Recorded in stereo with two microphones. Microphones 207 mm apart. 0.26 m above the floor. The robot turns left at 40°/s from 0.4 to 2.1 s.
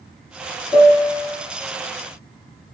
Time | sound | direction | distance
0.7 | a piano | 20° left (ahead or behind) | 1.4 m